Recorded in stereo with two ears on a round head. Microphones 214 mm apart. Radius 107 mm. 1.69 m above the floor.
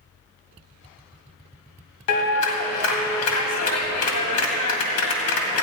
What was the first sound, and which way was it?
A clap, 65° left (ahead or behind).